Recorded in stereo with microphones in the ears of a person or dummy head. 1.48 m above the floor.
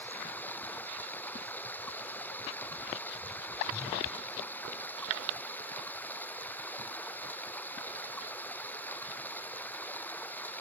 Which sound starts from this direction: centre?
Running water, at 0.0 s.